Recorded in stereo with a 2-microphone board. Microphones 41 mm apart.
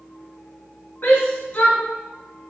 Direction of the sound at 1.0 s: 60° left (ahead or behind).